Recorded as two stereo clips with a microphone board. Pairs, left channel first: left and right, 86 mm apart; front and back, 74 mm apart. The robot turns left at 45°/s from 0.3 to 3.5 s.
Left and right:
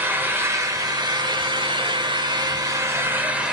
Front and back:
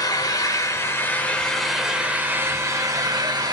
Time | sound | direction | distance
0.0 | an engine running | 25° right | 0.9 m